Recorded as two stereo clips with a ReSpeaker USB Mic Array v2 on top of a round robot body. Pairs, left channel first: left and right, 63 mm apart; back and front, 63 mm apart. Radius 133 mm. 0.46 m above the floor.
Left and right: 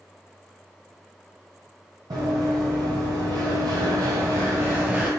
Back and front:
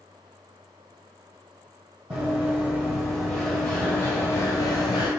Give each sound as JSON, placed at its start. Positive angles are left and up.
{"t": 2.1, "sound": "running footsteps", "azimuth_deg": -70, "distance_m": 1.4}